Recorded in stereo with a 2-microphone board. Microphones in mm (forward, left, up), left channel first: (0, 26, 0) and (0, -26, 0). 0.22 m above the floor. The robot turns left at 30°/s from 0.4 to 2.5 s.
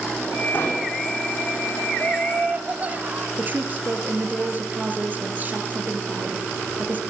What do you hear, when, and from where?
0.5 s an explosion: 40° left (ahead or behind), 7.5 m; by 0.9 s 50° left (ahead or behind), 7.5 m
2.0 s laughter: 25° right (ahead or behind), 1.2 m; by 3.3 s 30° right (ahead or behind), 1.2 m
3.4 s a woman speaking: 35° right (ahead or behind), 3.5 m